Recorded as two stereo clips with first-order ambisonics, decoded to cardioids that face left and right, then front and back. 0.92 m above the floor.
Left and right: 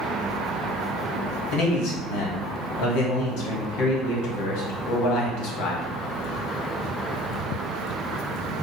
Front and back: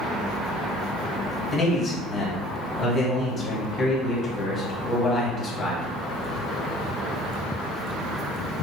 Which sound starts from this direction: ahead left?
A man speaking, at 1.5 s.